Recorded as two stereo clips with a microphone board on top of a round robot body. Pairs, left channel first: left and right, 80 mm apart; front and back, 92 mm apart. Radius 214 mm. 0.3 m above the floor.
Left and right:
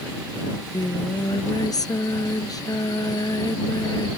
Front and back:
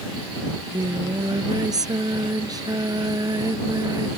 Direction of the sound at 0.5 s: 130° left.